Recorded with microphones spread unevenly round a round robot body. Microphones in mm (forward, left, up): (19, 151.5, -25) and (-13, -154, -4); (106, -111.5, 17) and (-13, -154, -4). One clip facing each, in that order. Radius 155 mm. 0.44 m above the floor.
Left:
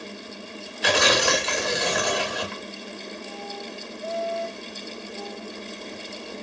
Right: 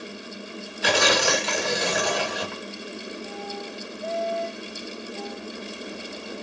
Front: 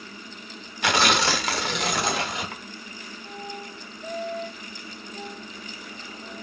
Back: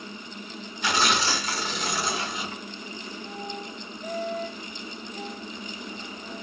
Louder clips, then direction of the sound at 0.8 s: Even, front 3 dB; 5° right.